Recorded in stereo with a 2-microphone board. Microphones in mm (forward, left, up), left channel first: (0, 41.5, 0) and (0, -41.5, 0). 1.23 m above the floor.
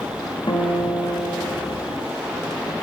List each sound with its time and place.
0.5 s a guitar: 55° left (ahead or behind), 1.8 m